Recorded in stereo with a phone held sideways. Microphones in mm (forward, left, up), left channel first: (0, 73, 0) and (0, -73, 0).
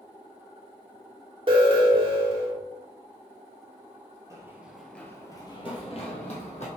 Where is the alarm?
35° right (ahead or behind), 1.2 m.